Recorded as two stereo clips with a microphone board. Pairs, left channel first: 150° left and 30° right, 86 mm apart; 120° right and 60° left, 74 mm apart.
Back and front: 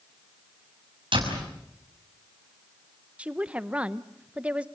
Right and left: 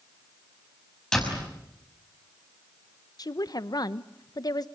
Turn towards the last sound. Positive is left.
turn(degrees=-105)